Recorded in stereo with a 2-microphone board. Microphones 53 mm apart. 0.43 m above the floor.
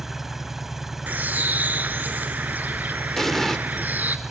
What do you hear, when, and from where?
0.0 s an engine running: 5° right (ahead or behind), 0.9 m
1.1 s a bird: 30° right (ahead or behind), 0.9 m
3.2 s an explosion: 5° left (ahead or behind), 0.9 m